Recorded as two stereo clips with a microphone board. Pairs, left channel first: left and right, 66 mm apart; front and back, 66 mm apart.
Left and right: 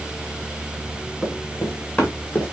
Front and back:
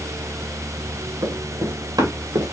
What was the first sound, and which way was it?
Running footsteps, 175° left.